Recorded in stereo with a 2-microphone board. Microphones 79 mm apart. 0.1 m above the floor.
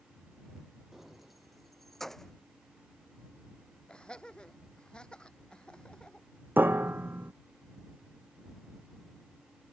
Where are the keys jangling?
5° right (ahead or behind); by 2.3 s 5° left (ahead or behind).